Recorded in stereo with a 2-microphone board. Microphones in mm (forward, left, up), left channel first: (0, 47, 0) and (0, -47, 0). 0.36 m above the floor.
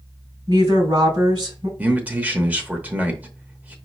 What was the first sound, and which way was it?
A woman speaking, 60° right (ahead or behind).